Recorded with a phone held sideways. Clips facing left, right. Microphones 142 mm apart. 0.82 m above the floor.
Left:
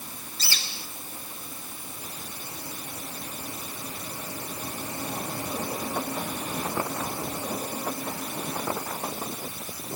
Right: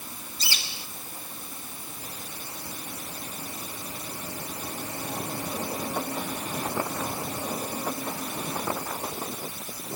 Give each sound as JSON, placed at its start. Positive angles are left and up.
{"t": 0.4, "sound": "a bird", "side_deg": -15, "distance_m": 2.0}